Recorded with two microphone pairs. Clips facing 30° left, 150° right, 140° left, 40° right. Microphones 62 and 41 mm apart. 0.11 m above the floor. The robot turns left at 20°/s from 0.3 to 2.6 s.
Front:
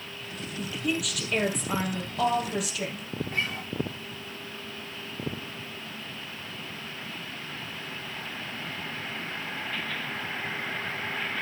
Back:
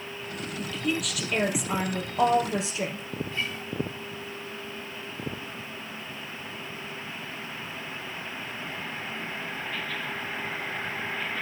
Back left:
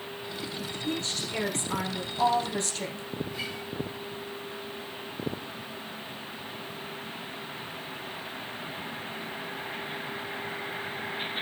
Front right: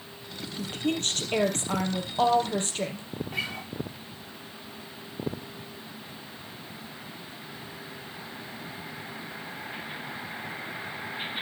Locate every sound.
0.6 s a woman speaking: 45° right, 2.5 m; by 3.0 s 90° right, 2.5 m
3.3 s a guitar: 15° right, 2.5 m